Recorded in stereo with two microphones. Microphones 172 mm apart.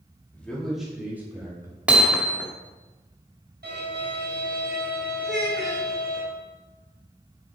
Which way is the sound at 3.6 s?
65° right (ahead or behind).